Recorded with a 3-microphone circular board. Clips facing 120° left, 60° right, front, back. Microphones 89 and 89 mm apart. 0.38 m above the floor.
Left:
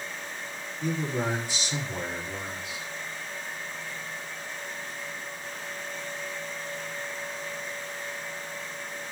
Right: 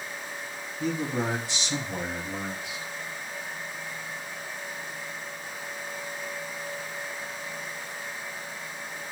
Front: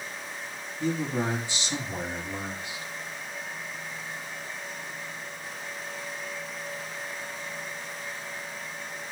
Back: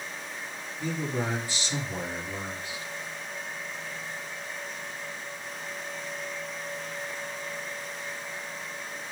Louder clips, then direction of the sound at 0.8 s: Right 1 dB, front 3 dB; 70° right.